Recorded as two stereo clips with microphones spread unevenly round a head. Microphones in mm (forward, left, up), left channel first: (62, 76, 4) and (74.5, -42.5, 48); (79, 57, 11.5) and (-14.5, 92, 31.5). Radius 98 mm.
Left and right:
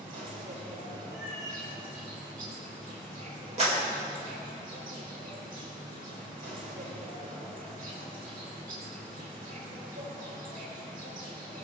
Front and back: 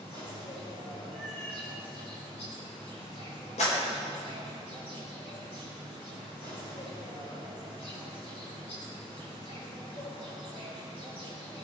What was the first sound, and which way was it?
An insect, 75° right.